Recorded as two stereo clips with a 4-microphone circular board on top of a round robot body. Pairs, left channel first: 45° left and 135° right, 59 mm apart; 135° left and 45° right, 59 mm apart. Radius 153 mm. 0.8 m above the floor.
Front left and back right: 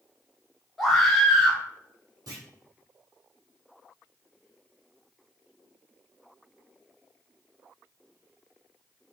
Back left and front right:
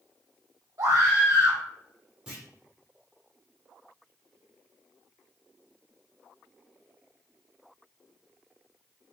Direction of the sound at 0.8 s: 45° right.